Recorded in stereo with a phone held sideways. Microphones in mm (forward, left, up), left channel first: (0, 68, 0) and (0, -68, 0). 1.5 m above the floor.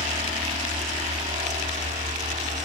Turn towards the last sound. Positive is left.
turn(degrees=-65)  # may be behind; listen again after turning